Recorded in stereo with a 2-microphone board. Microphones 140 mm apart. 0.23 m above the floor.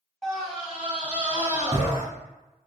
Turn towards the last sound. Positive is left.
turn(degrees=-20)  # may be behind; listen again after turning